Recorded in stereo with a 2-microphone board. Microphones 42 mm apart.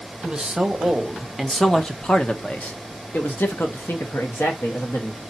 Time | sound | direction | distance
0.2 | a man speaking | 15° right (ahead or behind) | 1.4 m